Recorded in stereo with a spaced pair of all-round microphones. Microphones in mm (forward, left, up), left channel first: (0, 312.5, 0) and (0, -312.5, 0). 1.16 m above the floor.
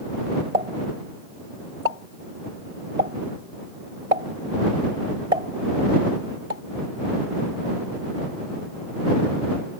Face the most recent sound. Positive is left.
turn(degrees=-80)